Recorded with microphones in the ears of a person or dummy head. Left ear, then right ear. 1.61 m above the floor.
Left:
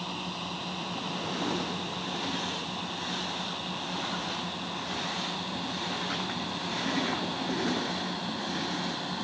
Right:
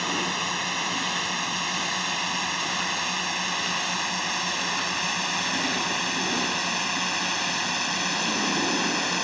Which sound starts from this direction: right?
A drone, at 0.0 s.